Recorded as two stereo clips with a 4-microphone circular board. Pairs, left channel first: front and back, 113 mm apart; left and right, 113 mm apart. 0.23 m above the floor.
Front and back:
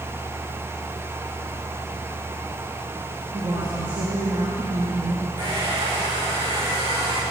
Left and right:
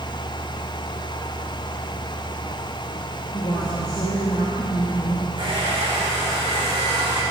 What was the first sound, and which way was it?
A woman speaking, 140° left.